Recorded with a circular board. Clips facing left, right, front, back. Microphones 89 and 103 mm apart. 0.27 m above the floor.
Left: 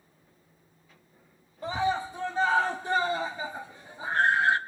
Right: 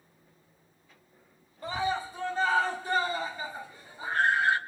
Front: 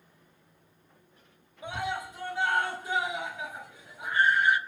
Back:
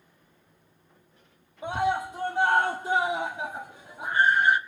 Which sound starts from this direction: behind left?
A scream, at 1.6 s.